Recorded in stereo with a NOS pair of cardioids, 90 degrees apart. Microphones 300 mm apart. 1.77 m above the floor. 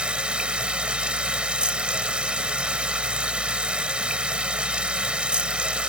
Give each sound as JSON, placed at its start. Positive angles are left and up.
{"t": 0.0, "sound": "running water", "azimuth_deg": -5}